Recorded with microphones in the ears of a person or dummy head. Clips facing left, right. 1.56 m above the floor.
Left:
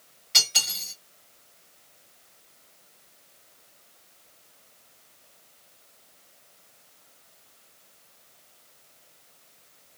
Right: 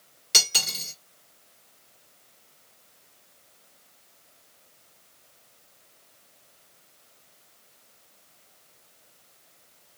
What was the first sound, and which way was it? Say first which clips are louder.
Cutlery clinking: right 4 dB; 50° right (ahead or behind).